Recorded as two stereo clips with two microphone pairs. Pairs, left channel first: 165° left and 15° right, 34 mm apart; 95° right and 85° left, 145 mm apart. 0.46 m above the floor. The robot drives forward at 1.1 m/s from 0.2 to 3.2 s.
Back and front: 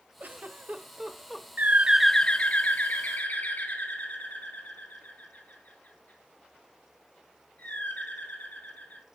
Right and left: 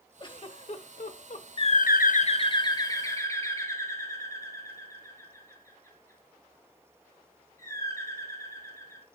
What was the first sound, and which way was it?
A giggle, 40° right.